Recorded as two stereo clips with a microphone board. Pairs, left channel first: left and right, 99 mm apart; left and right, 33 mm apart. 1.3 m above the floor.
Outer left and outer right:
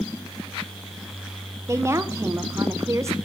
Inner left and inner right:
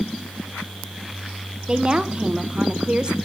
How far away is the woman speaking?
About 0.7 m.